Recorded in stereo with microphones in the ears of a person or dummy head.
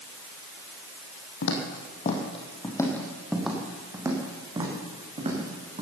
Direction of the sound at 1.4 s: 55° left (ahead or behind).